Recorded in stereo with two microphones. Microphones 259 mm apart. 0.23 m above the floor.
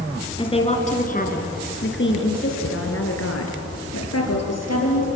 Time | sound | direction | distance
0.4 | a woman speaking | 20° left (ahead or behind) | 3.5 m